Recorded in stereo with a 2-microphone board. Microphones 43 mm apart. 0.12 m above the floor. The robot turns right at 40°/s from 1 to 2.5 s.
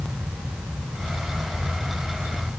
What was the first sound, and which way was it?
Only background noise.